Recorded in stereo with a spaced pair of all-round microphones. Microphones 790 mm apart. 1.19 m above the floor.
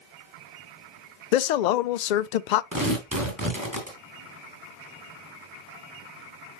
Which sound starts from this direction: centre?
Tearing paper, at 2.7 s.